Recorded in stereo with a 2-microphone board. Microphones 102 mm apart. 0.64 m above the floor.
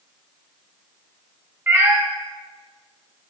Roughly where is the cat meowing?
Right.